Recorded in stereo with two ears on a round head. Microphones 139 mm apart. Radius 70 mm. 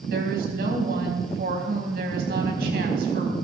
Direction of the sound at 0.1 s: 65° right (ahead or behind).